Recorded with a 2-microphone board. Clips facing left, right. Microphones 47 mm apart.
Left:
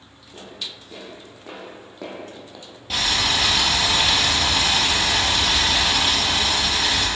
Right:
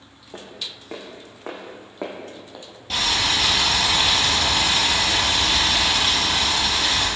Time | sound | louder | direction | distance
0.3 | footsteps | even | 65° right (ahead or behind) | 2.5 m
2.9 | boiling | even | 5° left (ahead or behind) | 2 m